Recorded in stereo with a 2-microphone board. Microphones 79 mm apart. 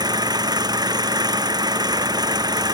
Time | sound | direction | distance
0.0 | an engine running | 60° right (ahead or behind) | ?